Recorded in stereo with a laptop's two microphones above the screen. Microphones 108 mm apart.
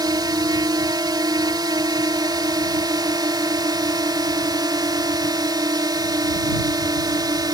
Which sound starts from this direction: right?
A drone, at 0.0 s.